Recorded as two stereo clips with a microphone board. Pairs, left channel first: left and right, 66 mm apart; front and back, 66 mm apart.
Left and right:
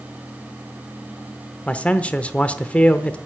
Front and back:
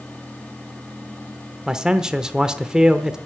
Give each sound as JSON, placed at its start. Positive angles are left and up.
{"t": 1.7, "sound": "a man speaking", "azimuth_deg": 120, "distance_m": 0.9}